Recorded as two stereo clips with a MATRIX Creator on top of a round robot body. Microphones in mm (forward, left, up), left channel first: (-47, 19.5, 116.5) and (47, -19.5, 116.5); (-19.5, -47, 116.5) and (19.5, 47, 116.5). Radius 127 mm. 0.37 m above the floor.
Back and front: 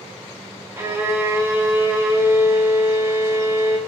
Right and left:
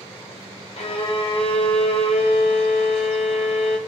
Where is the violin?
85° right, 1.6 m.